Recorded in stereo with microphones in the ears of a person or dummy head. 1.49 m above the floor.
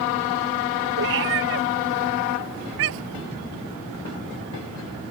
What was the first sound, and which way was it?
A cat meowing, 65° right (ahead or behind).